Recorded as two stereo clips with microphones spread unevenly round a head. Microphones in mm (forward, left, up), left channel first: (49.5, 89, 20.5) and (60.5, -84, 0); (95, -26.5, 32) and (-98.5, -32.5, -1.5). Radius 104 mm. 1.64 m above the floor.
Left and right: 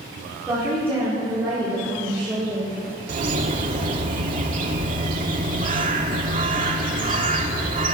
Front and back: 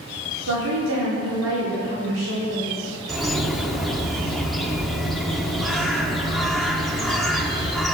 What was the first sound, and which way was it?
A woman speaking, 170° right.